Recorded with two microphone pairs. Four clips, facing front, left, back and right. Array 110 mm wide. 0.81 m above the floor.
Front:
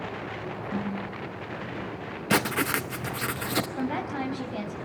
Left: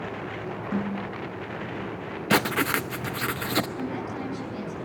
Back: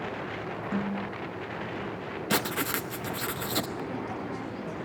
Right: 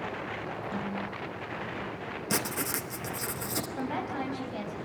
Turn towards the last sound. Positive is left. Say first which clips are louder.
# left 1 dB, front 4 dB
turn(degrees=-30)